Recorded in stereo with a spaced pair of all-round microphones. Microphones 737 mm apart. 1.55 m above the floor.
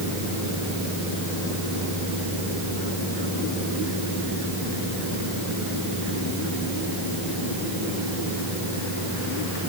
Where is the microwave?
I don't hear a microwave.